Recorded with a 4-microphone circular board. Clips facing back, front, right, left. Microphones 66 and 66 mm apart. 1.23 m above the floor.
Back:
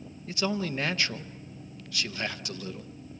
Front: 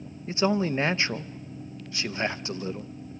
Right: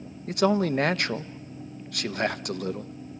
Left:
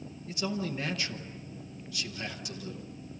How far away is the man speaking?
About 0.7 m.